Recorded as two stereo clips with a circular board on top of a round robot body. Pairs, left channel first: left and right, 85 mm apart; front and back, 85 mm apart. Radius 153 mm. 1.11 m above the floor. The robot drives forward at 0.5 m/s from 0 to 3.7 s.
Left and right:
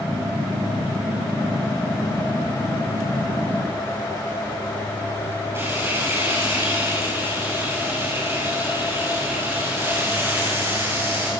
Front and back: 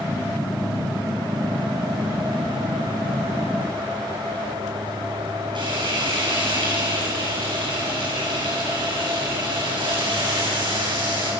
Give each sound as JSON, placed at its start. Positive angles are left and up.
{"t": 5.5, "sound": "frying", "azimuth_deg": -155, "distance_m": 10.0}